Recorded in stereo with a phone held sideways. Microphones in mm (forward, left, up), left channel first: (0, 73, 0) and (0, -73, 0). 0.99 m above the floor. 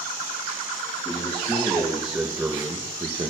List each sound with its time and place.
1.1 s a man speaking: 15° left (ahead or behind), 1.5 m; by 3.3 s 35° right (ahead or behind), 0.9 m